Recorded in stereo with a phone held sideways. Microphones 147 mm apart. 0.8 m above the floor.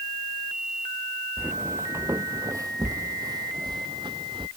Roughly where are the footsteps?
Centre.